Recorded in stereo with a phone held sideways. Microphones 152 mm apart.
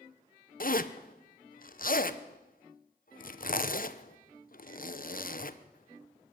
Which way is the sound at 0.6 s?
65° left (ahead or behind).